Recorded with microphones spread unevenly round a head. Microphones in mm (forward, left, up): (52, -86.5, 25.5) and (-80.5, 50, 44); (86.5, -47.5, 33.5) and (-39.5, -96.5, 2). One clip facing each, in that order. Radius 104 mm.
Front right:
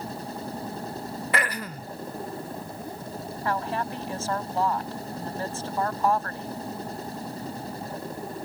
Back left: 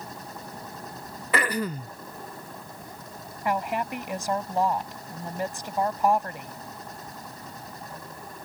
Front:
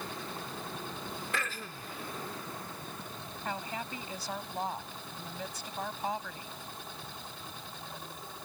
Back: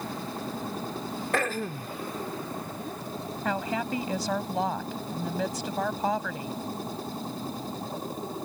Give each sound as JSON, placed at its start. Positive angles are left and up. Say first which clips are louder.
{"t": 0.0, "sound": "a machine running", "louder": "front right 6 dB, back 7 dB", "azimuth_deg": -105}
{"t": 1.3, "sound": "throat clearing", "louder": "back left 6 dB, back 10 dB", "azimuth_deg": 135}
{"t": 3.5, "sound": "a woman speaking", "louder": "back left 2 dB, back 9 dB", "azimuth_deg": -150}